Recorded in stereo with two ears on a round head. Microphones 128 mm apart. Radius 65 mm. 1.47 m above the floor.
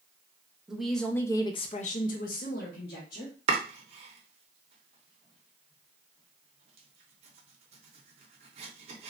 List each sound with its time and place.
0.7 s a woman speaking: 5° right (ahead or behind), 0.7 m; by 3.4 s 60° left (ahead or behind), 1.1 m
3.5 s chopping: 45° right (ahead or behind), 0.6 m